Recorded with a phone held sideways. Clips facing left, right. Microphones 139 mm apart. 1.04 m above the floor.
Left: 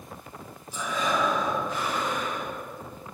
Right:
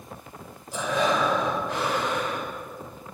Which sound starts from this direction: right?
Breathing, at 0.7 s.